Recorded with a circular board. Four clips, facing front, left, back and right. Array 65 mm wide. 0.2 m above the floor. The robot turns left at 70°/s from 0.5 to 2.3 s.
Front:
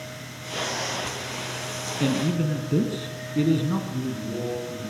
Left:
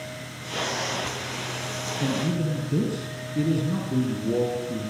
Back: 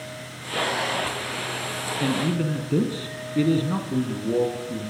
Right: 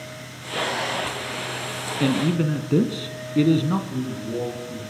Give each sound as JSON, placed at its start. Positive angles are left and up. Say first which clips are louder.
{"t": 2.0, "sound": "a man speaking", "louder": "right 5 dB, even", "azimuth_deg": -80, "distance_m": 2.0}
{"t": 3.9, "sound": "a man speaking", "louder": "left 3 dB, back 6 dB", "azimuth_deg": 140, "distance_m": 6.5}